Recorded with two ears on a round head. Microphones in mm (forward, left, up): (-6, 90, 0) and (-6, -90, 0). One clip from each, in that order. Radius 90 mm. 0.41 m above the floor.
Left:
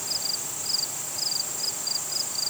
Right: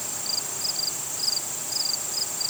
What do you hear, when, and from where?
Only background noise.